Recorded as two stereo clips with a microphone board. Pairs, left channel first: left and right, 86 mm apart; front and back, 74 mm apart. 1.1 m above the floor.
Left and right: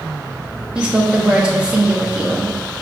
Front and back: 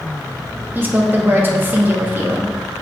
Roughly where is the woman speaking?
Behind right.